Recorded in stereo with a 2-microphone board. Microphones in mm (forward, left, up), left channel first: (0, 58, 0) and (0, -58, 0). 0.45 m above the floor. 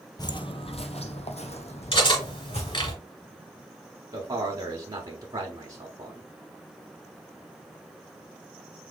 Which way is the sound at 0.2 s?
35° left (ahead or behind).